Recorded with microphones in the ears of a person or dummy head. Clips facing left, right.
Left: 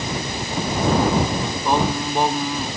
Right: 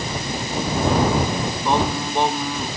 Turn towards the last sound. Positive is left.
turn(degrees=0)  # may be behind; listen again after turning